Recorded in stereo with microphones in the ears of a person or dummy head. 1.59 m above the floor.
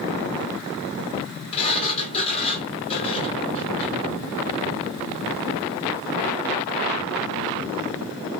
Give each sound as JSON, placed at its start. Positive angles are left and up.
{"t": 1.5, "sound": "a sliding door", "side_deg": 30, "distance_m": 1.4}